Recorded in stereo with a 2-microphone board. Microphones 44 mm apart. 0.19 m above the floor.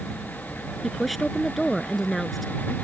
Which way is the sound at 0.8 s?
Centre (ahead or behind).